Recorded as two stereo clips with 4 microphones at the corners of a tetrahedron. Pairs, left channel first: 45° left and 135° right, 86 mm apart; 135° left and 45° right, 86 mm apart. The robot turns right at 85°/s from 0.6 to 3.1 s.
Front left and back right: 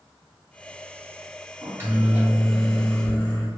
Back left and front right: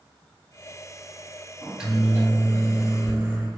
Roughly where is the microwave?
Behind right.